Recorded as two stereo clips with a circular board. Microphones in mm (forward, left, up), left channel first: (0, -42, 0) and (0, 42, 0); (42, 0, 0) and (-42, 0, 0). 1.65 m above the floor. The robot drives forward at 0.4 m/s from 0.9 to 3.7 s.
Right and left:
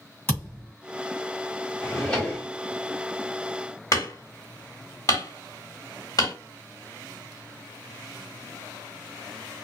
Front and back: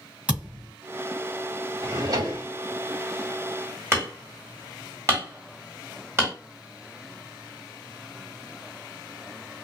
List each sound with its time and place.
0.3 s a thud: 120° right, 1.6 m
1.8 s a drawer: 165° right, 1.2 m
3.9 s hammering: 125° right, 1.5 m